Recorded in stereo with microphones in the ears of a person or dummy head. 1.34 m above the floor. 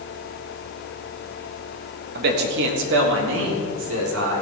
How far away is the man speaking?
About 1.7 m.